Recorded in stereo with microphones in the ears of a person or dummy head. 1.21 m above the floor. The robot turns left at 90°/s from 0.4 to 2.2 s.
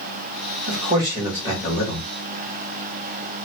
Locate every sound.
0.7 s a man speaking: 130° right, 1.6 m; by 2.1 s 110° left, 1.6 m